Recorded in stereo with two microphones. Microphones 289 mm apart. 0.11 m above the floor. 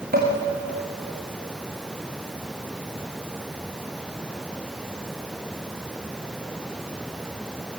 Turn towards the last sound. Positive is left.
turn(degrees=-30)  # may be behind; listen again after turning